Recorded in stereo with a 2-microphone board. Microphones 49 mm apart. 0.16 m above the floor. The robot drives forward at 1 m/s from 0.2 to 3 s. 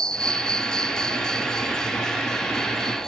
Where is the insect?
10° left (ahead or behind).